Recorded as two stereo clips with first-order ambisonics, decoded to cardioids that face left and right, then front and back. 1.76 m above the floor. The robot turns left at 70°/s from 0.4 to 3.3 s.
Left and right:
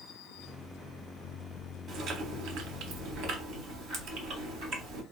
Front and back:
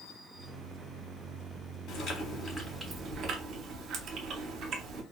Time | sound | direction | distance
1.9 | chewing | 30° right | 0.8 m